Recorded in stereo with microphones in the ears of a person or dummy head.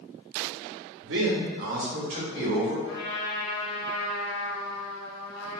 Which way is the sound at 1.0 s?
65° right (ahead or behind).